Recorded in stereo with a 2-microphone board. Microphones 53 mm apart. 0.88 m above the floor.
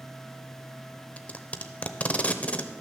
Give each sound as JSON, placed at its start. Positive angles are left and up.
{"t": 1.2, "sound": "tape being pulled", "side_deg": 30, "distance_m": 0.7}